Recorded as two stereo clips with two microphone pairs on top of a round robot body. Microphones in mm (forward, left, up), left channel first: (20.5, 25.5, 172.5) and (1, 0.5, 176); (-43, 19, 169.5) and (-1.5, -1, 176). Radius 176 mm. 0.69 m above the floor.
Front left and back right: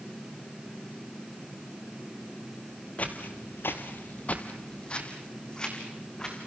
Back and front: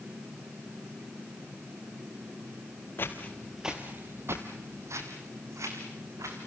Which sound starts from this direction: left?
Footsteps, at 3.0 s.